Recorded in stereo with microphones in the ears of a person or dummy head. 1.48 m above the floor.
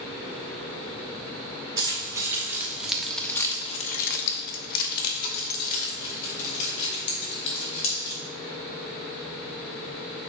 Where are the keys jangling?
20° right (ahead or behind), 1.9 m; by 8.2 s 45° left (ahead or behind), 4 m.